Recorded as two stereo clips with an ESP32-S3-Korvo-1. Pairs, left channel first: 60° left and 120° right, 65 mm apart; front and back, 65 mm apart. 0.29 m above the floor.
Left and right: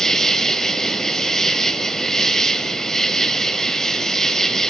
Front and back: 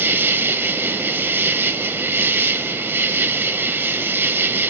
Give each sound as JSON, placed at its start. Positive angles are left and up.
{"t": 0.0, "sound": "an insect", "azimuth_deg": 140, "distance_m": 0.7}